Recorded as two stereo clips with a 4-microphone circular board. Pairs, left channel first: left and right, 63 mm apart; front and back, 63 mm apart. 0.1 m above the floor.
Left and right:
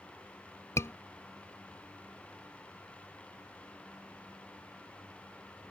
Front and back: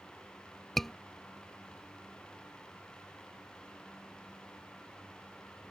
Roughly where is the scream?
Left.